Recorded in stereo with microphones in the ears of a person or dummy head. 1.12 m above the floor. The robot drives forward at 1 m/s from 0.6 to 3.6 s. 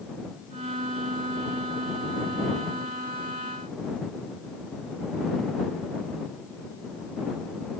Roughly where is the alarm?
I don't hear an alarm.